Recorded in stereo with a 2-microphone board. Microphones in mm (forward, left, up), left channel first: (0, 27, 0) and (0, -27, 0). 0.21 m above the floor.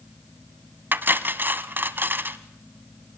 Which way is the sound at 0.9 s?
40° right (ahead or behind).